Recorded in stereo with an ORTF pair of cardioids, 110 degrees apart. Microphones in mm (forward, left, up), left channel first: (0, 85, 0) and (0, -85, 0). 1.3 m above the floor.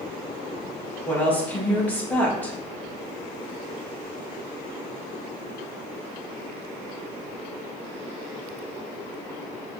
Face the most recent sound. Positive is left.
turn(degrees=10)